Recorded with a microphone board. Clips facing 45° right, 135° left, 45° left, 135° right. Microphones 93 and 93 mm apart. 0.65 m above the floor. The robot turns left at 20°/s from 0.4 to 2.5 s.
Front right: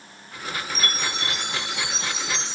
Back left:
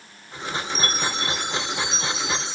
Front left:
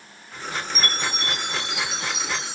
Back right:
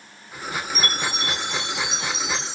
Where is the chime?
90° left, 1.6 m; by 2.6 s 55° left, 1.6 m.